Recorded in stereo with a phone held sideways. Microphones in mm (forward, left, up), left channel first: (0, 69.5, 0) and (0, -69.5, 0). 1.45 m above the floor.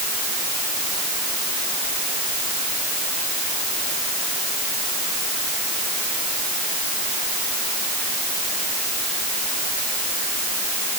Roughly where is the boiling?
No boiling in this recording.